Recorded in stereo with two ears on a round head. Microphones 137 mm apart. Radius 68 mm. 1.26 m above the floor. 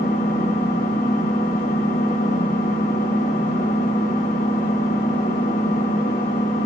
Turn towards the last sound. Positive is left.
turn(degrees=85)